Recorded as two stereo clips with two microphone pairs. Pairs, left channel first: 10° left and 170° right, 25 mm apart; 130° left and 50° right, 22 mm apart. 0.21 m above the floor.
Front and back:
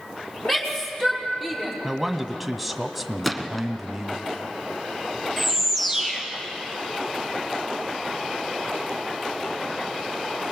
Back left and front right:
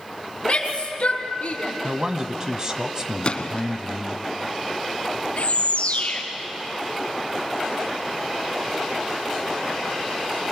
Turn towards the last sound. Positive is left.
turn(degrees=95)